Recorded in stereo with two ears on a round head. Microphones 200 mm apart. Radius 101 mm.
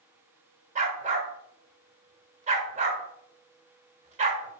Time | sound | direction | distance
0.8 | a dog barking | 30° right (ahead or behind) | 1.4 m